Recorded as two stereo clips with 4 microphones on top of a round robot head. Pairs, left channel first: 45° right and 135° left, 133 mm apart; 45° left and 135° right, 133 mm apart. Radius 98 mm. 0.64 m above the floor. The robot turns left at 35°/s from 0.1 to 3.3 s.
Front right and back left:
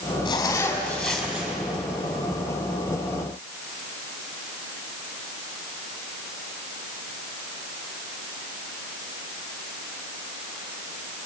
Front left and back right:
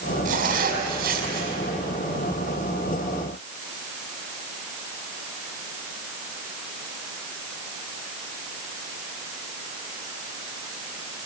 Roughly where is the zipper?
Right.